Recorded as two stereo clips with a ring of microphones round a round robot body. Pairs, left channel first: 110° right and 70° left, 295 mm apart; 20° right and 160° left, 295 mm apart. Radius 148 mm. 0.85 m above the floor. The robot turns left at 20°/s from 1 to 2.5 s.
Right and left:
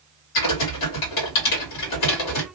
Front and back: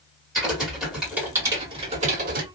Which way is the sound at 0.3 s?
115° right.